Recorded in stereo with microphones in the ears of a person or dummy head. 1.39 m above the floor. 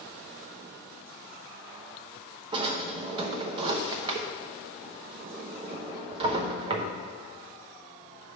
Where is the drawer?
30° right (ahead or behind), 0.7 m.